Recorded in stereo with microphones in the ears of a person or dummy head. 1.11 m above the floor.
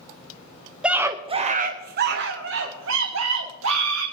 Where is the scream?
Centre (ahead or behind), 0.6 m; by 4.0 s 75° right (ahead or behind), 1.8 m.